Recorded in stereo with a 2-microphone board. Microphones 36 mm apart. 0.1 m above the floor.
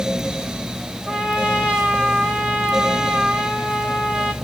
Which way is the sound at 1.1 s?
15° right (ahead or behind).